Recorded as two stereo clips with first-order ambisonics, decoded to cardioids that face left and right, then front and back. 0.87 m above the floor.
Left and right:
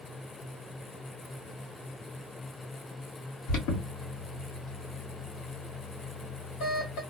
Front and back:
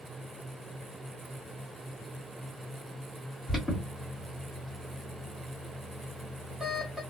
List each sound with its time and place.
3.5 s an alarm: 85° left, 1.1 m